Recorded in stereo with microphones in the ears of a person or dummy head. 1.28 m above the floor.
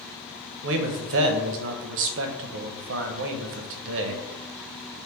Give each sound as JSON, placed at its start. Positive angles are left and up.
{"t": 0.6, "sound": "a man speaking", "side_deg": -65, "distance_m": 0.7}